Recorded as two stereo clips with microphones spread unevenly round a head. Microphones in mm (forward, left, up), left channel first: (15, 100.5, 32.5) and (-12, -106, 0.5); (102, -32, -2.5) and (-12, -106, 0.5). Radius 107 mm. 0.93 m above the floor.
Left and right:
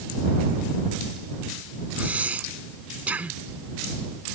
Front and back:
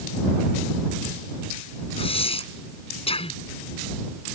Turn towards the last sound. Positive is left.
turn(degrees=-15)